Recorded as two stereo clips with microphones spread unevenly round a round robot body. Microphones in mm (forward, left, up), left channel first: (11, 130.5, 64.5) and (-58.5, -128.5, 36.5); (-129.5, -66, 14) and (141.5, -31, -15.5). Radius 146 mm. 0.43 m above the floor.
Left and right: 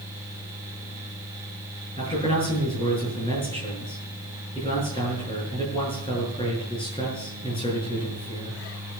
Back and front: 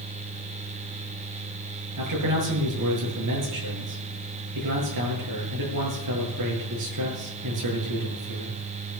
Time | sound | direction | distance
2.0 | a man speaking | straight ahead | 8 m